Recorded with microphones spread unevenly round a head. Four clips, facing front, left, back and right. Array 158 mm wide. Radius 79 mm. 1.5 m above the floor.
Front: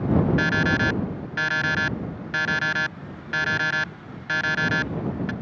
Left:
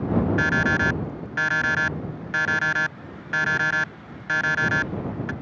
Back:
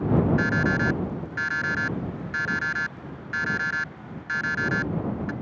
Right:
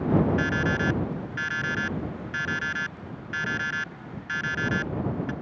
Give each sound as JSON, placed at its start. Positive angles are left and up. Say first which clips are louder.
{"t": 0.4, "sound": "an alarm clock", "louder": "left 4 dB, front 1 dB", "azimuth_deg": 60}